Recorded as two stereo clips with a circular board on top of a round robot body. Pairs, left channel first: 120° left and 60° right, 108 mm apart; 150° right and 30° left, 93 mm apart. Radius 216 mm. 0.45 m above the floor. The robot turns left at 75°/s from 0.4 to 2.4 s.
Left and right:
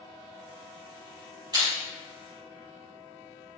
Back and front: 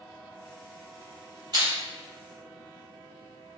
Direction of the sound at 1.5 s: 10° right.